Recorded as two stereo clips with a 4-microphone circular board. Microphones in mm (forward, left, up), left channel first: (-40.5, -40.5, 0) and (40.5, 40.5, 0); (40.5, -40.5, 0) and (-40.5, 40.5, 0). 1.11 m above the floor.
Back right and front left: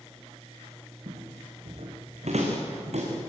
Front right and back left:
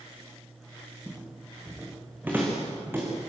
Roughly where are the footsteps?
Ahead left.